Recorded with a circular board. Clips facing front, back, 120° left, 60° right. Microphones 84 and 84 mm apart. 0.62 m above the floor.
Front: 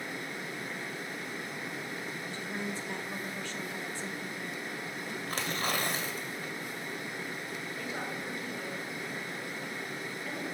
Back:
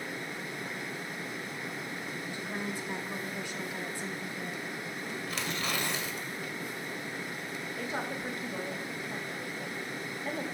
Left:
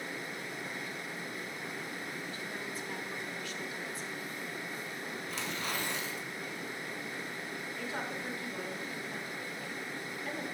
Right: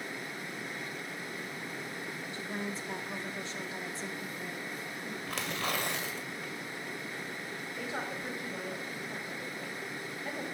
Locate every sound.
2.3 s a woman speaking: 110° right, 1.1 m
5.3 s tearing paper: 45° right, 1.6 m
7.8 s a woman speaking: 130° right, 2.5 m